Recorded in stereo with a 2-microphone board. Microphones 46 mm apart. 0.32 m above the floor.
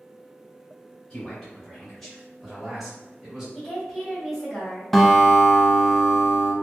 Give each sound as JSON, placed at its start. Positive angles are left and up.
{"t": 1.1, "sound": "a man speaking", "side_deg": 15, "distance_m": 1.5}
{"t": 3.5, "sound": "a woman speaking", "side_deg": 5, "distance_m": 1.5}
{"t": 4.9, "sound": "a guitar", "side_deg": 5, "distance_m": 0.6}